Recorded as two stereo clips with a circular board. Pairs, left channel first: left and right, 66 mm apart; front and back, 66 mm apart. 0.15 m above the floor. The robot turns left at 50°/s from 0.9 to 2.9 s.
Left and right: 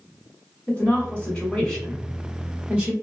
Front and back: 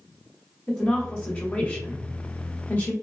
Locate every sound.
0.7 s a woman speaking: 60° left, 1.1 m; by 2.9 s 40° right, 1.1 m